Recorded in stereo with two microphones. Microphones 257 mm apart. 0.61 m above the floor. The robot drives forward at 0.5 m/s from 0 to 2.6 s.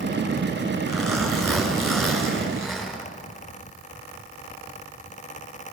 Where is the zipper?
Centre (ahead or behind), 5.5 m.